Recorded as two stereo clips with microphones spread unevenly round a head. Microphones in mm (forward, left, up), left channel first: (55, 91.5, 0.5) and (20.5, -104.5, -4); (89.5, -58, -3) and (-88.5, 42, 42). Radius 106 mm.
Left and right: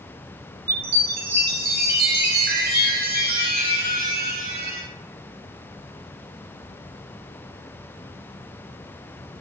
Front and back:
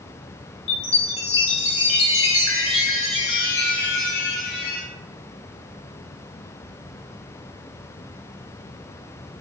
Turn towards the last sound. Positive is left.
turn(degrees=-60)